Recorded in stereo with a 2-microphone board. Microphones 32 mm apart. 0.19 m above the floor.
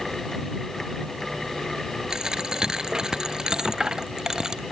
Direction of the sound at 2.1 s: 20° right (ahead or behind).